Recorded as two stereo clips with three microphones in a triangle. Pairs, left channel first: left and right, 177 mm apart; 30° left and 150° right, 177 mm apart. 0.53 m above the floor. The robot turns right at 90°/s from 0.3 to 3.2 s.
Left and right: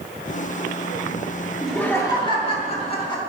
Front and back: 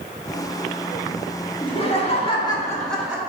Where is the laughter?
5° right, 1.3 m; by 3.2 s 140° left, 1.3 m.